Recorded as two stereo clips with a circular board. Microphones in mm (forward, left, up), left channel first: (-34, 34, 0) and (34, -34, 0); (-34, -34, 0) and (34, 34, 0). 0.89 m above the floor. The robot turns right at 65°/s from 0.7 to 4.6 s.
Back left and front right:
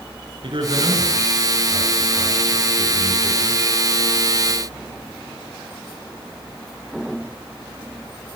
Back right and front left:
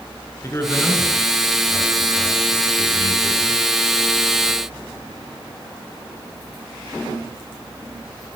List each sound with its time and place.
0.4 s a man speaking: 75° right, 9 m; by 3.6 s 115° left, 9 m